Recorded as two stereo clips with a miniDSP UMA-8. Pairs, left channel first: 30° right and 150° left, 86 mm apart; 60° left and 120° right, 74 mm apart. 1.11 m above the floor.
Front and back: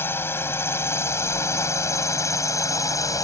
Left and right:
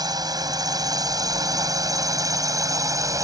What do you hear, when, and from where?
0.0 s a drone: 95° right; by 3.2 s 80° right